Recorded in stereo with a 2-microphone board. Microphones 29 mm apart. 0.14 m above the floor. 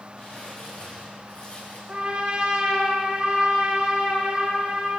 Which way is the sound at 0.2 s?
45° left (ahead or behind).